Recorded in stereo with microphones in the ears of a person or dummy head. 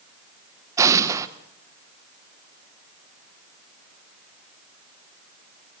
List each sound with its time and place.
0.8 s an explosion: 15° right (ahead or behind), 1.2 m